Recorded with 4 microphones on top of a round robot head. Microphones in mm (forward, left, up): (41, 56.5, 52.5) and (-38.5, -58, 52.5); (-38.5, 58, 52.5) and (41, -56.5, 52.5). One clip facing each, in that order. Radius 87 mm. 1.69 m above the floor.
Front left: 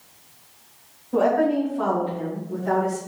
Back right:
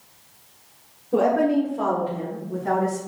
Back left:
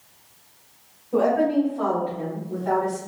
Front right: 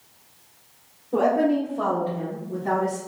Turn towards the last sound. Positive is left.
turn(degrees=-95)